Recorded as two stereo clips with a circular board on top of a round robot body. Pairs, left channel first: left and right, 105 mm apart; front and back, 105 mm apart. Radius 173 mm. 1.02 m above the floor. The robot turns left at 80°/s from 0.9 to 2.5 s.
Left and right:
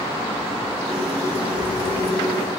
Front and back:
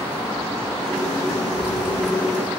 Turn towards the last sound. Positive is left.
turn(degrees=145)